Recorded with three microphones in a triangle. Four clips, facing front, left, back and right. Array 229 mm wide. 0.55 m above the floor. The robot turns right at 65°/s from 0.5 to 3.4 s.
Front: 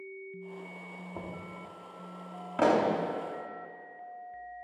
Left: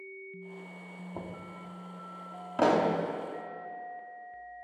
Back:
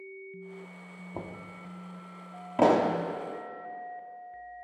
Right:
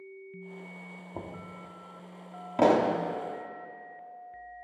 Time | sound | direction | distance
1.1 | knocking | 165° right | 0.9 m
2.6 | a pop | 160° right | 0.8 m